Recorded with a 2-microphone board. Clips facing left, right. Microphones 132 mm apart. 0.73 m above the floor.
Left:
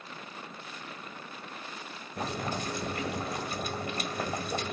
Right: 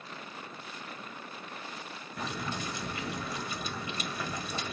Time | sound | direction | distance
2.2 | boiling | 50° left (ahead or behind) | 2.0 m